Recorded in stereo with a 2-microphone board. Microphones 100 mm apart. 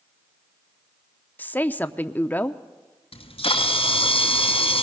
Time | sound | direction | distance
1.4 | a woman speaking | 20° left (ahead or behind) | 0.7 m
3.1 | a camera shutter | 75° left (ahead or behind) | 2 m